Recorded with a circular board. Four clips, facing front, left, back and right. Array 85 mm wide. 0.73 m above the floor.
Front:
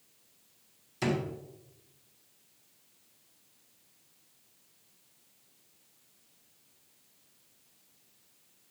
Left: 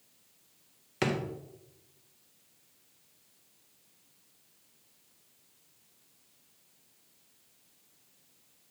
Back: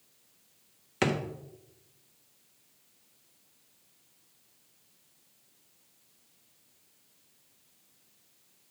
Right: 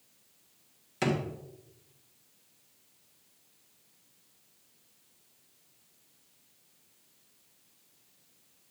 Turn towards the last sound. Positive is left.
turn(degrees=160)